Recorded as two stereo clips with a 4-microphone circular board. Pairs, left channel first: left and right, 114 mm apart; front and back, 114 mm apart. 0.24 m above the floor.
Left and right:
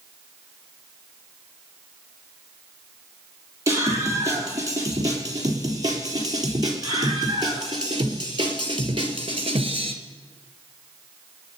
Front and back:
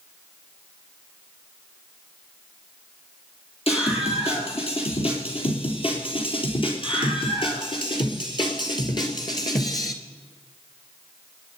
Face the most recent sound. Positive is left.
turn(degrees=-55)